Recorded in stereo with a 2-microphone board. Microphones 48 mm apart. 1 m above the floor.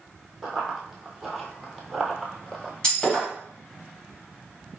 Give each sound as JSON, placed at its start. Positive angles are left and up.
{"t": 0.4, "sound": "running footsteps", "side_deg": -5, "distance_m": 1.4}
{"t": 2.8, "sound": "breaking glass", "side_deg": 15, "distance_m": 2.5}